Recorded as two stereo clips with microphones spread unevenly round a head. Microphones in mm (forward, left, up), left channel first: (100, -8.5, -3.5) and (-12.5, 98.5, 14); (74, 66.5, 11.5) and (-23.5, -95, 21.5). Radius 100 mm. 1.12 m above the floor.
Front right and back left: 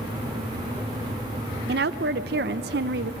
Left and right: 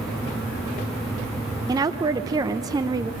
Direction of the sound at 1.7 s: 165° left.